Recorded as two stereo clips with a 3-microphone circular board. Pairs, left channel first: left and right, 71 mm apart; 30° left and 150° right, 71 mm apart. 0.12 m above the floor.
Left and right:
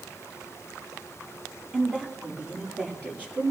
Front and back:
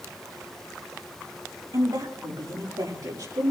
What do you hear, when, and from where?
1.7 s a woman speaking: 160° right, 7 m; by 3.5 s 155° right, 8.5 m